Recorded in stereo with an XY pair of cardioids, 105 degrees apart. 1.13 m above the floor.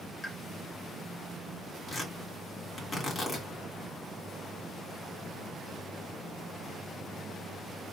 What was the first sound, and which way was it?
A pop, 25° left.